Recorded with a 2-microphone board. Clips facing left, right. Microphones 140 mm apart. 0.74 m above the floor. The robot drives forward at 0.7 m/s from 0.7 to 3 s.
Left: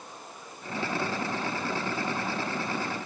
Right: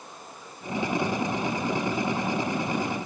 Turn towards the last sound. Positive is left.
No sound to turn to.